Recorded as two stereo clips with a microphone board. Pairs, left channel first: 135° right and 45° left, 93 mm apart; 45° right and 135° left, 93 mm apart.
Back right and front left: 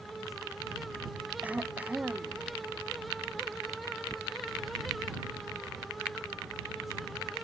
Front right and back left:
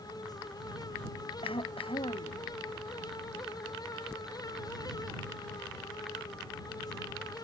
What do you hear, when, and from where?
1.4 s throat clearing: 30° right